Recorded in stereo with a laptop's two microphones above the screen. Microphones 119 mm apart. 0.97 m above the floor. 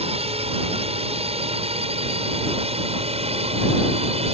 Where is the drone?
60° right (ahead or behind).